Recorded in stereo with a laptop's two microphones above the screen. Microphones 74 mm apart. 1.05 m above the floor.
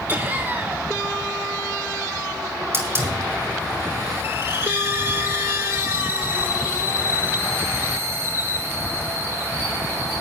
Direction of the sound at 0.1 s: 30° right (ahead or behind).